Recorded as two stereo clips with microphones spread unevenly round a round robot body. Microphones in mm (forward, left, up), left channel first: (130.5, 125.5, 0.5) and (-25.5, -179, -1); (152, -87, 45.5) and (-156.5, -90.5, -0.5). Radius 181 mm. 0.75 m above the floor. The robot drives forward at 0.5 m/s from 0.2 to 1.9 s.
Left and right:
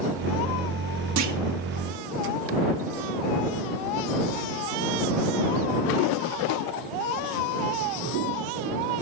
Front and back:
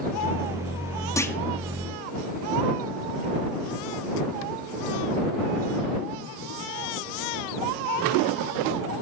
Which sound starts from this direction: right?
A clunk, at 1.2 s.